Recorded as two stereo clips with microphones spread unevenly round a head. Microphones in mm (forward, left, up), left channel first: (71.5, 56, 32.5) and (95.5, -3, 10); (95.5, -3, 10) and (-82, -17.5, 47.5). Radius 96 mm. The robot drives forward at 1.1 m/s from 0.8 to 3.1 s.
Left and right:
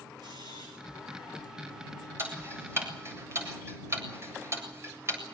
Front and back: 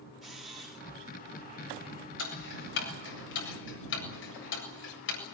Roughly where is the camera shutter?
Right.